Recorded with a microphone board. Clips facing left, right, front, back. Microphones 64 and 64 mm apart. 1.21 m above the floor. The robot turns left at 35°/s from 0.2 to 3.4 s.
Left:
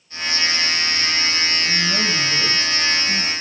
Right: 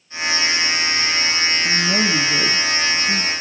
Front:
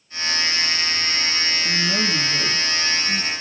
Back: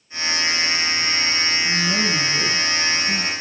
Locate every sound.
1.6 s a woman speaking: 75° right, 1.2 m; by 3.3 s 130° right, 1.2 m